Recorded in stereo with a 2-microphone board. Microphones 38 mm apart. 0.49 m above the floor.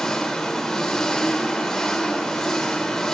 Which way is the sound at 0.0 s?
10° left (ahead or behind).